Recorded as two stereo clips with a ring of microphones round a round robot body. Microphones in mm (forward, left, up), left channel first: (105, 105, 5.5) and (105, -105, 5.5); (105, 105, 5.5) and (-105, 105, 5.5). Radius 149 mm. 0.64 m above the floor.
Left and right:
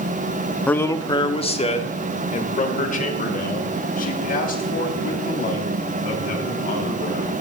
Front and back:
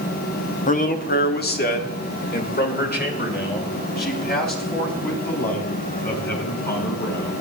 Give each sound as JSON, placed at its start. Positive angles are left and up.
{"t": 0.7, "sound": "a man speaking", "azimuth_deg": 10, "distance_m": 1.1}